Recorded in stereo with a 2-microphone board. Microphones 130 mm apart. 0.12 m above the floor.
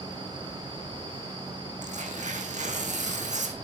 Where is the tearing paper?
65° right (ahead or behind), 1.7 m.